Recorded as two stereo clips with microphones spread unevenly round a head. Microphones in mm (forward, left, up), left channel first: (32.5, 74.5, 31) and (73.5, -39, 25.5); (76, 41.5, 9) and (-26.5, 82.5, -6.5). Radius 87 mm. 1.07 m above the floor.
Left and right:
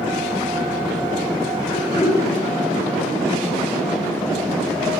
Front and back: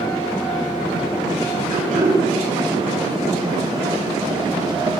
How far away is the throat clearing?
About 7.5 m.